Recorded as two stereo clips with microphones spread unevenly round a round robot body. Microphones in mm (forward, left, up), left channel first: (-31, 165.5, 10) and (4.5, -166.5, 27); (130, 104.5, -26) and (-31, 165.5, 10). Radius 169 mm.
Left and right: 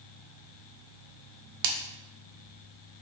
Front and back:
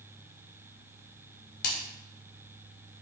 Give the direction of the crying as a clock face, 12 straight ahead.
I don't hear crying.